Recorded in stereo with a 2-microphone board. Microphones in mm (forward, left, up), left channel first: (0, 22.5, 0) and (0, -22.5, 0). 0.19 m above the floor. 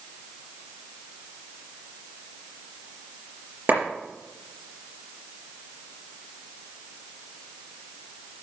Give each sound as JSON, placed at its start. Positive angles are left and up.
{"t": 3.7, "sound": "a clap", "side_deg": -55, "distance_m": 4.0}